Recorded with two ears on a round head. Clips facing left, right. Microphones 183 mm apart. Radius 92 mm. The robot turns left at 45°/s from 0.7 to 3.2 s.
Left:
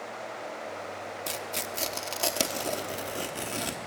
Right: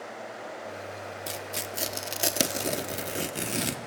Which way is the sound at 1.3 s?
Centre (ahead or behind).